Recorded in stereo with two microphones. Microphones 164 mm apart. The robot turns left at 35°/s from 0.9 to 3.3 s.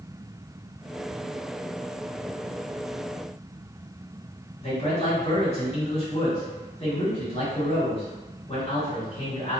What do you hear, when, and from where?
4.6 s a man speaking: 35° left (ahead or behind), 1.8 m